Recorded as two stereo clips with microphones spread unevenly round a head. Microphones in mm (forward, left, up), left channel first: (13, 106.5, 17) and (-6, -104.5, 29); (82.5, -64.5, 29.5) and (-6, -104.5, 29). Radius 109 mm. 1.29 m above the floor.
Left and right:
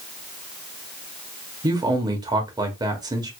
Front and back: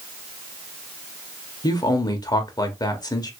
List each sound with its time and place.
1.6 s a man speaking: 25° right, 1.0 m